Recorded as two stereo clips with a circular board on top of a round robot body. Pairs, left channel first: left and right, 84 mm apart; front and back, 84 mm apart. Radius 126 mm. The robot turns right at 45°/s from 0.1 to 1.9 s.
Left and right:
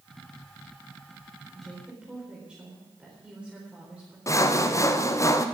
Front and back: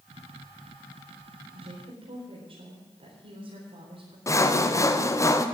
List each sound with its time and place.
1.5 s a woman speaking: 175° left, 4 m; by 4.2 s 170° right, 4 m
4.3 s sawing: 45° left, 1.2 m